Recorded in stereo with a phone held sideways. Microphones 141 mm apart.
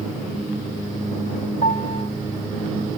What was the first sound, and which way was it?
A piano, 70° left (ahead or behind).